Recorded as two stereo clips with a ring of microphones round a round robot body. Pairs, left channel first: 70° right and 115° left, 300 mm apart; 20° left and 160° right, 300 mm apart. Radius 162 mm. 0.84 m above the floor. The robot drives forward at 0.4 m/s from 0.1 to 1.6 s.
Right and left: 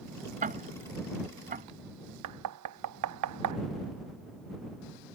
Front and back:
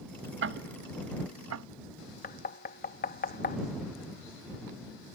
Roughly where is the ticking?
Behind.